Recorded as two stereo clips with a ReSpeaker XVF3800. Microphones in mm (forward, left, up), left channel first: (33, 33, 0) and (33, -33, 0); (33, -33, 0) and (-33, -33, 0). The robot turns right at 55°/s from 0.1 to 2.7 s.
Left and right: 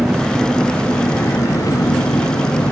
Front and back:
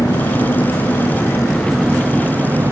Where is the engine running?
15° right; by 2.7 s 130° left.